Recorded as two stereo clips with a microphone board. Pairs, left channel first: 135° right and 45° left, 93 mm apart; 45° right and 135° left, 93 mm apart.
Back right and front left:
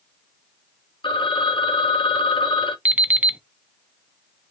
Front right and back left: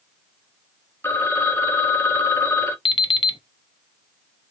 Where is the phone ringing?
110° right, 0.7 m.